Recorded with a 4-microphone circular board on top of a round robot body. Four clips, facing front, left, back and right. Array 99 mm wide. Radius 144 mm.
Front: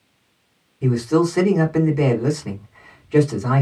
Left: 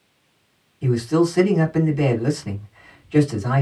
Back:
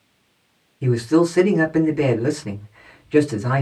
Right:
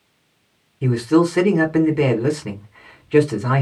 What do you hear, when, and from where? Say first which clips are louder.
0.8 s a man speaking: right 3 dB, back 1 dB; 75° right, 2 m